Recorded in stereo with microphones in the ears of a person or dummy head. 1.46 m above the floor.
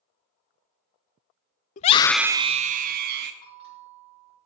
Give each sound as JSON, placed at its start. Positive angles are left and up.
{"t": 1.8, "sound": "a scream", "side_deg": 40, "distance_m": 0.5}
{"t": 3.4, "sound": "a bell", "side_deg": 50, "distance_m": 4.0}